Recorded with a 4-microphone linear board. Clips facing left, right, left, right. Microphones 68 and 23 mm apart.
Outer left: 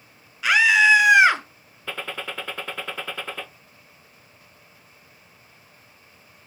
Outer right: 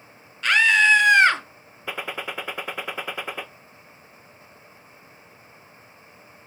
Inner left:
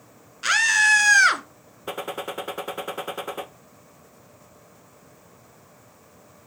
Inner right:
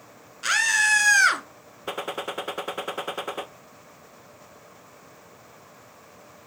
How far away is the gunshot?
About 0.5 m.